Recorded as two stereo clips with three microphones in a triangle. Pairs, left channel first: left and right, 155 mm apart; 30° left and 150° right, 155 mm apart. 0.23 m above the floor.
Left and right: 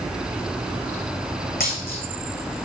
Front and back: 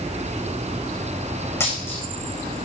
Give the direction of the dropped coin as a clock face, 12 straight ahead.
9 o'clock.